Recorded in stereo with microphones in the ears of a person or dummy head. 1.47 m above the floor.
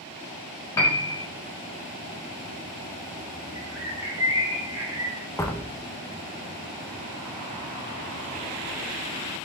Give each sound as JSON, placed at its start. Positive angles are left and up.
{"t": 0.8, "sound": "a piano", "side_deg": 15, "distance_m": 1.3}
{"t": 3.5, "sound": "a bird", "side_deg": -15, "distance_m": 3.5}
{"t": 5.4, "sound": "a door slam", "side_deg": 15, "distance_m": 1.1}